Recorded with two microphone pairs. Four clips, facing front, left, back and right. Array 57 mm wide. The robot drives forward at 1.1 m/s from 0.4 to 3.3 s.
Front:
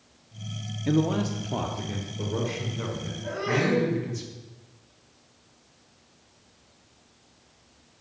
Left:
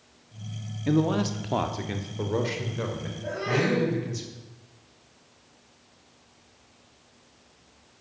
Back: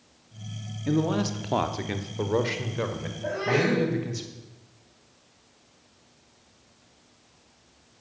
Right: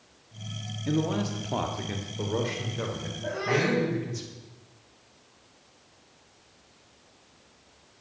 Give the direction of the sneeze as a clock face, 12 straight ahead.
5 o'clock.